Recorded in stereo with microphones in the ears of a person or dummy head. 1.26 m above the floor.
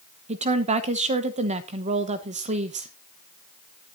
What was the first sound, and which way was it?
A woman speaking, 30° right (ahead or behind).